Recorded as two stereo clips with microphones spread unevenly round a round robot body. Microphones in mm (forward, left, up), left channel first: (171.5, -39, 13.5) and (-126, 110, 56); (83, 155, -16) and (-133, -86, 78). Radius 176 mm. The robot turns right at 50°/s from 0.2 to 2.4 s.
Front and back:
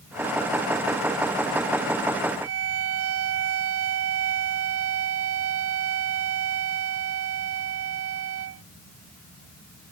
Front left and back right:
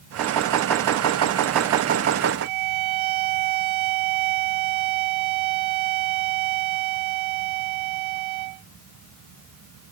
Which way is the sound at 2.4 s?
150° right.